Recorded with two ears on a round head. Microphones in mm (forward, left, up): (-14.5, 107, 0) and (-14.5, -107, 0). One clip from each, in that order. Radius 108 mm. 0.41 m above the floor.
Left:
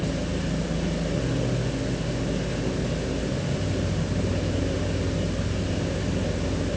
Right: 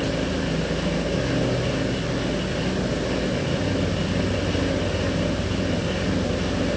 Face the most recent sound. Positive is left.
No sound to turn to.